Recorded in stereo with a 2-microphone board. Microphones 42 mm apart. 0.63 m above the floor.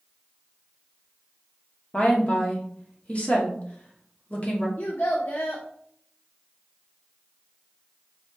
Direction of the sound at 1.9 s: 30° left (ahead or behind).